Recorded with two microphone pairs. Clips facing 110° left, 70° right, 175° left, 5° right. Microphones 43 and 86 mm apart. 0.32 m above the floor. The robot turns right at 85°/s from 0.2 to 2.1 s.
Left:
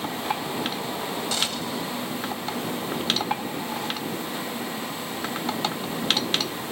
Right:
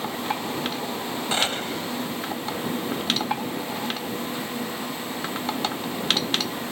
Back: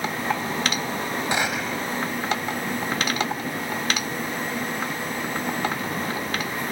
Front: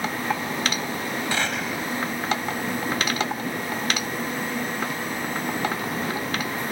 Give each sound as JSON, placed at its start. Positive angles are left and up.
{"t": 1.3, "sound": "a gunshot", "azimuth_deg": -120}